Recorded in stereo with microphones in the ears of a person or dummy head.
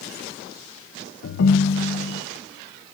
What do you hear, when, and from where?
1.2 s a ringtone: 75° left (ahead or behind), 0.7 m